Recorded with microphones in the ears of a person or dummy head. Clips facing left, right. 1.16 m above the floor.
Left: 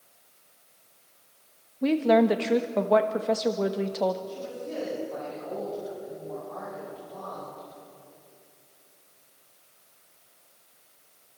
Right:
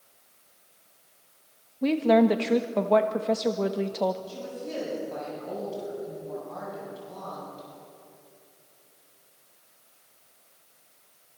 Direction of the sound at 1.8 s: Centre (ahead or behind).